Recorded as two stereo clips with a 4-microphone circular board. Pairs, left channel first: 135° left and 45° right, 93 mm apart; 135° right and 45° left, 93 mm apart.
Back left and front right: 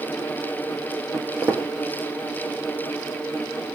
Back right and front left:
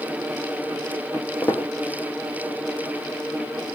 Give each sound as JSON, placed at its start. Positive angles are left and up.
{"t": 1.1, "sound": "footsteps", "azimuth_deg": -75, "distance_m": 1.4}